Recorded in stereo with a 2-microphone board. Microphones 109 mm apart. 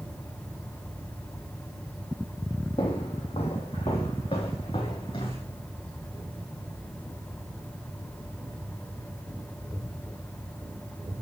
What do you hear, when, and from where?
2.8 s footsteps: 65° left (ahead or behind), 3.5 m; by 5.4 s 60° left (ahead or behind), 5 m